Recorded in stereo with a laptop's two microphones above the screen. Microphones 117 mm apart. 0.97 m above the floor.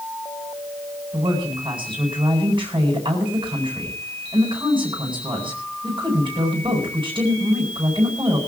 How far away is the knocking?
No knocking in this recording.